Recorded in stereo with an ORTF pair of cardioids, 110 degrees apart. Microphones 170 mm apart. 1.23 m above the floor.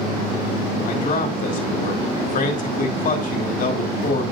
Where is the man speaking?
50° left, 2.5 m.